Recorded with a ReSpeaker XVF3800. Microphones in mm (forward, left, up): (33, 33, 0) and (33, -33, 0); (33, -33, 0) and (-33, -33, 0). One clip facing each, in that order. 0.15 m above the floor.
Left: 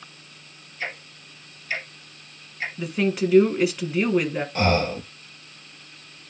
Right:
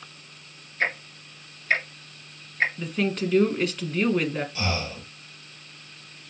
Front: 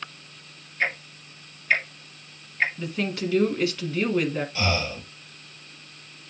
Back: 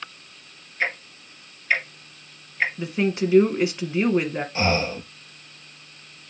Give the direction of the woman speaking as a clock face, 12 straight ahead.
7 o'clock.